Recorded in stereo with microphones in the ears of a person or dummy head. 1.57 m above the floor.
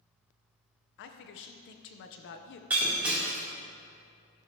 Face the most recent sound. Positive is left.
turn(degrees=-10)  # may be behind; listen again after turning